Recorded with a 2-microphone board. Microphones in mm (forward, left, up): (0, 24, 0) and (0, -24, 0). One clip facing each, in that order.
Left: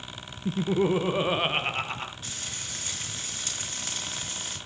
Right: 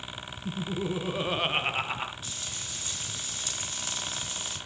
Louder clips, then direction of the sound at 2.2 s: Left 1 dB; 45° left (ahead or behind).